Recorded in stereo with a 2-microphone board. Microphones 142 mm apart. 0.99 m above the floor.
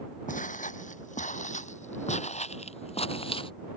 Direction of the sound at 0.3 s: 70° left (ahead or behind).